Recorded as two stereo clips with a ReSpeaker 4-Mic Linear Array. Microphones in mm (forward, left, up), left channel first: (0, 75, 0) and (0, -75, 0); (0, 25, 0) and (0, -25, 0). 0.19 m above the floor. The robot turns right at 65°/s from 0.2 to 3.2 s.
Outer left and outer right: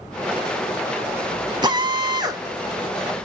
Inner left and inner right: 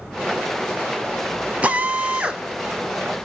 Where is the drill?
105° right, 0.8 m; by 2.4 s 55° right, 0.8 m.